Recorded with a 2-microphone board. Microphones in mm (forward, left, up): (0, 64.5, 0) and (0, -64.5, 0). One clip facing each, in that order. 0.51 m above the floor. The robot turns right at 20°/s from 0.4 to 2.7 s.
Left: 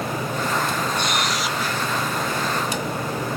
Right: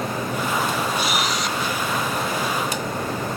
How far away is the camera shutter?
About 1.4 m.